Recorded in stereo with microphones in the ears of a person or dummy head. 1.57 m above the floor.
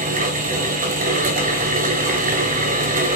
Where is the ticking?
I don't hear ticking.